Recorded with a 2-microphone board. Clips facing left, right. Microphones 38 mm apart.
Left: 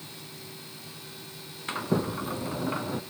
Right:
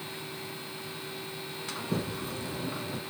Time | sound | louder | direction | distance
1.7 | a sliding door | left 6 dB | 35° left (ahead or behind) | 1.0 m